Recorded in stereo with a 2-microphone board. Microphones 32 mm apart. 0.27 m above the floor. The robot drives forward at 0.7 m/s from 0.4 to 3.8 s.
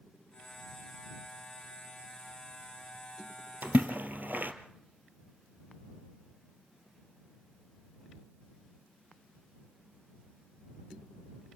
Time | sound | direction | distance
3.6 | a splash | 75° right (ahead or behind) | 1.7 m